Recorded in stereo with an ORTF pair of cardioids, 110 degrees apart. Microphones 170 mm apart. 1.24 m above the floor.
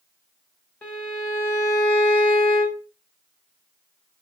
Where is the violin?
10° left, 1.2 m.